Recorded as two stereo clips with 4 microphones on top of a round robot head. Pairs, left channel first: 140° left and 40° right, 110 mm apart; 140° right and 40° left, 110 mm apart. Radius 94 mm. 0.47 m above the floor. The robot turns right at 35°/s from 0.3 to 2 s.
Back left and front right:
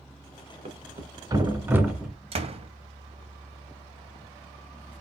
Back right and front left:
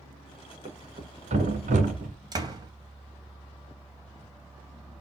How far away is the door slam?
About 2.5 m.